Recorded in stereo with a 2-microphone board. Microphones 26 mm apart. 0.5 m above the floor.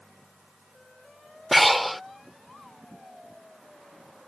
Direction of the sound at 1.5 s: Centre (ahead or behind).